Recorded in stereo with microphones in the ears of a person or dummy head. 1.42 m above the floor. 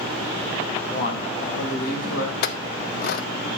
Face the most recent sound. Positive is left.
turn(degrees=60)  # may be behind; listen again after turning